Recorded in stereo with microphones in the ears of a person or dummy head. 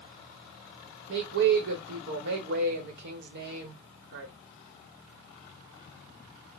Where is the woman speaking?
70° right (ahead or behind), 1.0 m.